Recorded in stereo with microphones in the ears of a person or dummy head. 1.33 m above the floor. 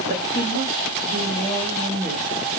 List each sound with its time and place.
0.1 s a woman speaking: 45° right (ahead or behind), 3 m; by 2.3 s 40° right (ahead or behind), 1.1 m